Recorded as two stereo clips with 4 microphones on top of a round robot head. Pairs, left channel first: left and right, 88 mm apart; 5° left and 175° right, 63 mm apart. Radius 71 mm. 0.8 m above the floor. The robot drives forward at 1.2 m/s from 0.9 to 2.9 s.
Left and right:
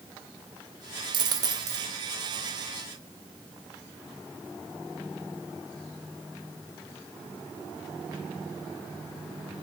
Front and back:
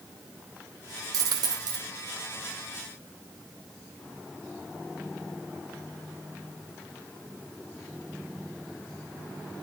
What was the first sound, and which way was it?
A dropped coin, 135° right.